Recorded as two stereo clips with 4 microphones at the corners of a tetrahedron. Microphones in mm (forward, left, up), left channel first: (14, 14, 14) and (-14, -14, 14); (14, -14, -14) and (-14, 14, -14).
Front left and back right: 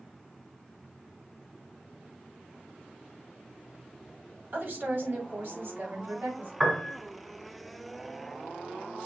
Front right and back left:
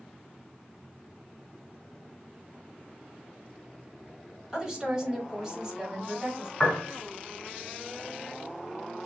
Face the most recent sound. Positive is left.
turn(degrees=-60)